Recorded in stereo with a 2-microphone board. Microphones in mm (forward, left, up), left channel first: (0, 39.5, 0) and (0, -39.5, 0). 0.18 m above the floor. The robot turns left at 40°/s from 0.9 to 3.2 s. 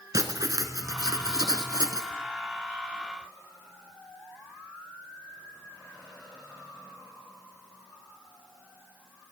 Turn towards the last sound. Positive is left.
turn(degrees=-150)